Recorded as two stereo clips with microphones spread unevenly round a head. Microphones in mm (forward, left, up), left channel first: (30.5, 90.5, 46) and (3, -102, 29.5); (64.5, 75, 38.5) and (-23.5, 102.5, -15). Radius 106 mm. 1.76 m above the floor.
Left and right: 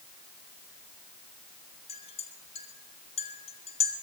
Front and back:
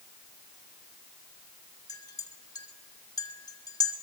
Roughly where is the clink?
Ahead.